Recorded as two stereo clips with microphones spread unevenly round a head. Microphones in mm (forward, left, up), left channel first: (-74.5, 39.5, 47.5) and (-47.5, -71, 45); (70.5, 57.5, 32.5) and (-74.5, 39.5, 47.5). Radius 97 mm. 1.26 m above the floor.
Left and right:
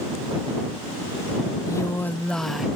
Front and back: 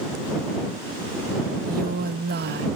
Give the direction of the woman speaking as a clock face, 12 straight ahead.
7 o'clock.